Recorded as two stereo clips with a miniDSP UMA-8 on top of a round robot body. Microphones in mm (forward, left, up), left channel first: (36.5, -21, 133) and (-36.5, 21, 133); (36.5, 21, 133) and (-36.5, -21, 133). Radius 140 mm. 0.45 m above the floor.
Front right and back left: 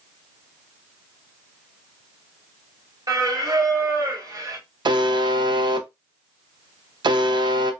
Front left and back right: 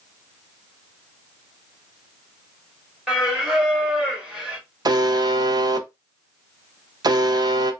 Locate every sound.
3.1 s singing: 135° left, 1.5 m
4.8 s a buzzer: 175° left, 0.6 m